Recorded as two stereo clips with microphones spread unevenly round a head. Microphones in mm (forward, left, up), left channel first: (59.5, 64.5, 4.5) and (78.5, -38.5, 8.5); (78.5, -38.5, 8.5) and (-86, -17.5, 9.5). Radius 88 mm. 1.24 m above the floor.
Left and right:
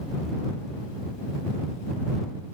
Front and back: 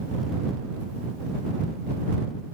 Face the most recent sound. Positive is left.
No sound to turn to.